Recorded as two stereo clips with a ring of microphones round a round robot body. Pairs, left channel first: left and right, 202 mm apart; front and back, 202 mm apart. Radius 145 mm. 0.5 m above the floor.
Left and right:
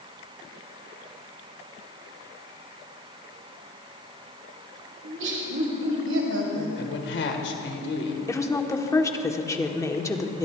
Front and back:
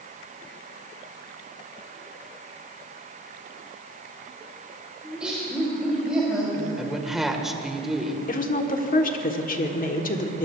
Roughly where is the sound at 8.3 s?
Ahead.